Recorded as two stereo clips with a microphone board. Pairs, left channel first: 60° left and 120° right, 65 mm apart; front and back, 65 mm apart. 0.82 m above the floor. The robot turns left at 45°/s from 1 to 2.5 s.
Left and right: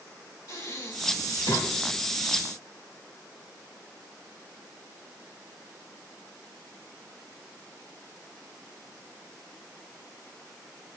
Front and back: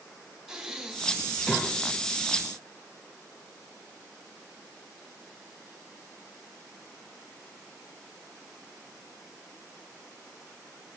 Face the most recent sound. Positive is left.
turn(degrees=30)